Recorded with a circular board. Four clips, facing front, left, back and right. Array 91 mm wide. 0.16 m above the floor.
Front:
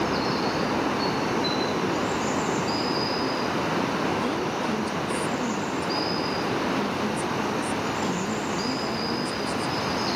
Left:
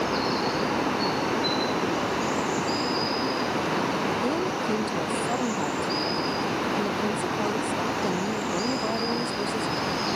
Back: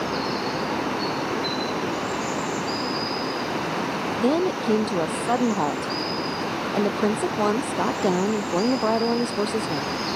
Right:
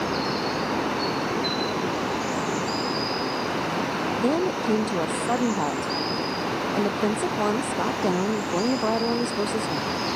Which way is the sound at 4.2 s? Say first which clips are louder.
Right 3 dB, back 5 dB; 155° right.